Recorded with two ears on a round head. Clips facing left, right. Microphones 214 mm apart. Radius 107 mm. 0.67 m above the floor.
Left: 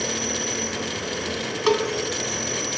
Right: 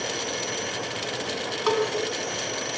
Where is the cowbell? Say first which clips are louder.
Left 3 dB; 35° left (ahead or behind), 2.5 m.